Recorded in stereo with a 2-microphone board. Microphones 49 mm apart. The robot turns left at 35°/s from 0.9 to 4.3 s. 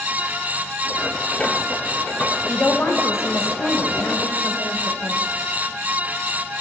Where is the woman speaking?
140° left, 1.2 m; by 5.2 s 75° left, 1.2 m.